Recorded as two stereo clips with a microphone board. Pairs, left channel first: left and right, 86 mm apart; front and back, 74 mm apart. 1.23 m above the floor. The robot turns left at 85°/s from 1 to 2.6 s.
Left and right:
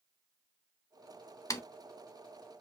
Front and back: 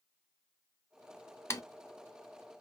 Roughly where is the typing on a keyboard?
Ahead left.